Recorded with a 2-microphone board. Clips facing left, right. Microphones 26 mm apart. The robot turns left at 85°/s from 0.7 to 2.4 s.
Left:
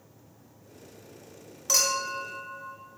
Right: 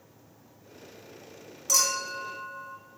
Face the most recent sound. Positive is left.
turn(degrees=-20)